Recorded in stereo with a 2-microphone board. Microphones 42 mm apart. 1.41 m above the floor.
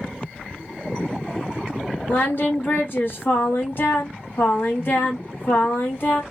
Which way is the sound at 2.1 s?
45° left (ahead or behind).